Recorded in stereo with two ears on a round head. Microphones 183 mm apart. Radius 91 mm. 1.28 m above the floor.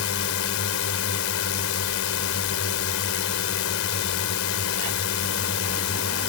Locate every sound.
0.0 s a drone: 75° left (ahead or behind)